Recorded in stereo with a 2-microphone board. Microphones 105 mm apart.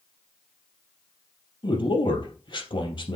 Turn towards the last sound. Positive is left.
turn(degrees=50)  # may be behind; listen again after turning